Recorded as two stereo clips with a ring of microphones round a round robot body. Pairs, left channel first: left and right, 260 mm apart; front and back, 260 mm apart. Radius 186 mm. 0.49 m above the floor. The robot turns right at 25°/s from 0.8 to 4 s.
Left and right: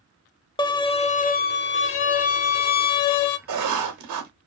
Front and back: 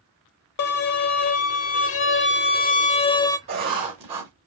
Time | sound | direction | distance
0.6 | a violin | 15° left | 0.7 m
3.5 | writing | 120° right | 0.9 m